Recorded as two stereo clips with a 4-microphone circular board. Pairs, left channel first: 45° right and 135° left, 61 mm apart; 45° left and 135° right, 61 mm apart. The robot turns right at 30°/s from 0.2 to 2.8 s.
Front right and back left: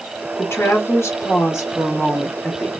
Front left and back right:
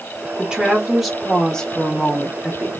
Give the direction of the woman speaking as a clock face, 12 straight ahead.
2 o'clock.